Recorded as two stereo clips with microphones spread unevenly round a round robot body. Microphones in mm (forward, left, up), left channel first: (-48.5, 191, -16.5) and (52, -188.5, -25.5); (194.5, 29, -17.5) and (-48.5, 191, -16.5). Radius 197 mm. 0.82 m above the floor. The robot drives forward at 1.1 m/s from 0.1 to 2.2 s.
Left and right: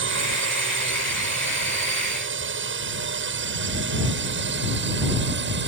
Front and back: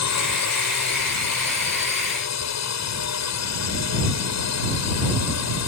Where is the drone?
15° right.